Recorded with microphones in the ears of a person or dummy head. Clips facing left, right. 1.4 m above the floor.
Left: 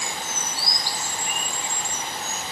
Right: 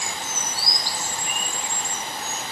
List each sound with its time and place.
Only background noise.